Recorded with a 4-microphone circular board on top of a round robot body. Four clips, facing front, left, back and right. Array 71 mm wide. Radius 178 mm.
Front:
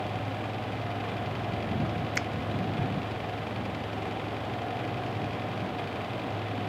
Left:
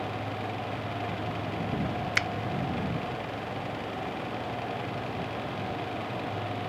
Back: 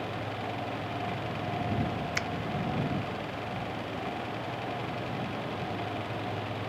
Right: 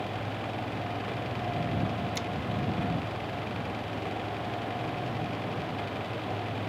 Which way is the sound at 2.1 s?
85° left.